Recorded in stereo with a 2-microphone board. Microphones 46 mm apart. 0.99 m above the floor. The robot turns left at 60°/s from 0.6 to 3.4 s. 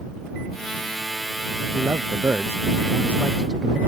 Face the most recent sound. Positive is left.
turn(degrees=-160)